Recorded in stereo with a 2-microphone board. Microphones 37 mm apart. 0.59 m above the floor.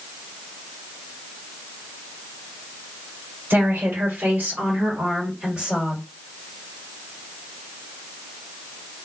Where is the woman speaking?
65° right (ahead or behind), 1.4 m; by 6.0 s 30° right (ahead or behind), 1.7 m.